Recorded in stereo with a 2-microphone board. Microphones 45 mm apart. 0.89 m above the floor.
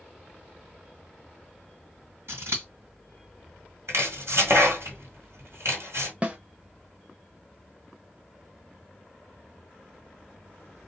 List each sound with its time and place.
2.3 s scissors: 75° right (ahead or behind), 1.6 m
3.9 s chopping: 85° right, 1.5 m
6.2 s a snare drum: 30° right (ahead or behind), 0.7 m